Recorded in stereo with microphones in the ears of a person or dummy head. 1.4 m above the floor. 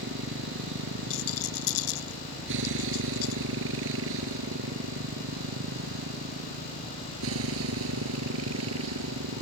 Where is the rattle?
85° left.